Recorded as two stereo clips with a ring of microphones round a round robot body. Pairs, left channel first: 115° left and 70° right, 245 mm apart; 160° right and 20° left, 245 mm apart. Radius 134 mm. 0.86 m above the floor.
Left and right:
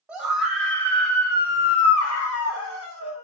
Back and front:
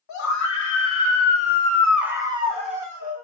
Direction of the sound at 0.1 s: 150° right.